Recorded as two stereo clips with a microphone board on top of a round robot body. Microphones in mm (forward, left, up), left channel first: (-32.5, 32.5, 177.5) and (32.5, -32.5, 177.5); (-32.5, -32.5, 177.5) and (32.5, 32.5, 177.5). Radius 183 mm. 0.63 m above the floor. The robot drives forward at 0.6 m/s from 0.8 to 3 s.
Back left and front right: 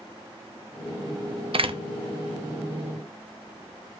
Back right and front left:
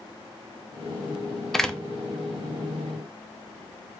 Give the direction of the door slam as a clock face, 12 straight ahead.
2 o'clock.